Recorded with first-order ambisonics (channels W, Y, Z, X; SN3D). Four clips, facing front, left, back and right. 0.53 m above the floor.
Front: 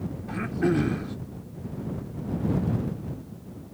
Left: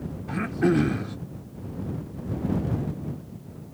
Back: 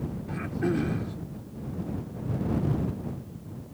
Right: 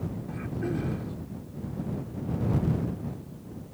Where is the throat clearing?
70° left.